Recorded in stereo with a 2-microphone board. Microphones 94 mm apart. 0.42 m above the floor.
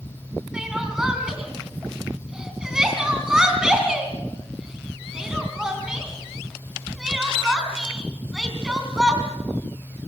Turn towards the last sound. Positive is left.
turn(degrees=-5)  # may be behind; listen again after turning